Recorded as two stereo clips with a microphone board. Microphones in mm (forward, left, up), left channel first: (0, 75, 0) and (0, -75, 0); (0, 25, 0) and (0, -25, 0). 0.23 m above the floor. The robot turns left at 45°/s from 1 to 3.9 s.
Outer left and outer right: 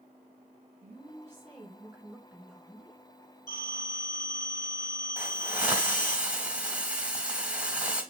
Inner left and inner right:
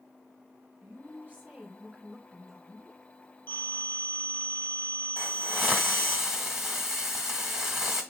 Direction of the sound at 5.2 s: 10° right (ahead or behind).